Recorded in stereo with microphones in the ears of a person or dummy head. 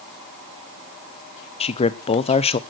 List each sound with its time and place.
1.6 s a man speaking: 25° left (ahead or behind), 0.8 m